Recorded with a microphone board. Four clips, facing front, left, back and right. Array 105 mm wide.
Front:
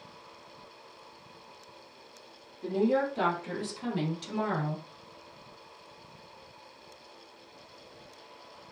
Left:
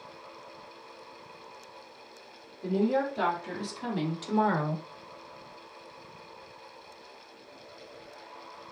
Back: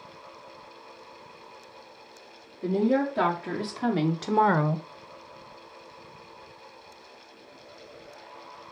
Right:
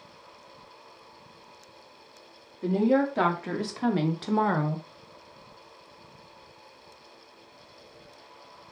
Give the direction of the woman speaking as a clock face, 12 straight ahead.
4 o'clock.